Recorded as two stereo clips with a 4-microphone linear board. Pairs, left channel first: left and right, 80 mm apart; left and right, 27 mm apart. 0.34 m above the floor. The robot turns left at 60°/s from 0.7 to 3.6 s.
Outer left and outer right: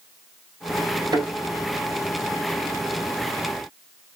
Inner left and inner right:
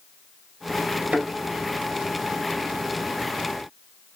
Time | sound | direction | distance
1.1 | a thud | 65° right (ahead or behind) | 1.3 m